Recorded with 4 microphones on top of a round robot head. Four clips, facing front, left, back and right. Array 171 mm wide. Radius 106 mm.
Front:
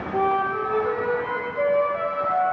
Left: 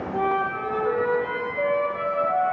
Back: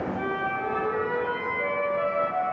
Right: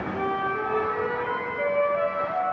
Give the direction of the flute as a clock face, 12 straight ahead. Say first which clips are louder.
Left 4 dB, front 7 dB; 11 o'clock.